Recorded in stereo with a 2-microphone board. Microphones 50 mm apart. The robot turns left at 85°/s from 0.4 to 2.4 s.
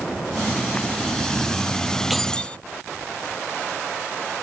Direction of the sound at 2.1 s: Centre (ahead or behind).